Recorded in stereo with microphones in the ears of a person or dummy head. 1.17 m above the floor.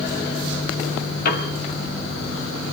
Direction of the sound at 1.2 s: 55° left (ahead or behind).